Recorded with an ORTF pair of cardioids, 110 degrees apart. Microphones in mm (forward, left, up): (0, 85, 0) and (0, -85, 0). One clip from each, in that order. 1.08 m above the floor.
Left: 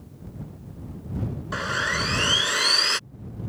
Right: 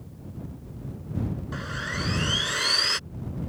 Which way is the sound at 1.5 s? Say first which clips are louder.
Left 8 dB; 50° left.